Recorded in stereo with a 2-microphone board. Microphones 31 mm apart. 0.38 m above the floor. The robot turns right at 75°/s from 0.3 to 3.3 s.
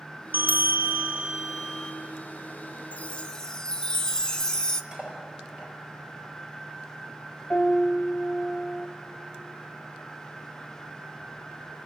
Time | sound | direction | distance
0.3 | a bell | 90° right | 1.7 m
2.9 | a chime | 50° left (ahead or behind) | 0.9 m
4.9 | cutlery clinking | 25° right (ahead or behind) | 5 m
7.5 | a piano | 45° left (ahead or behind) | 1.8 m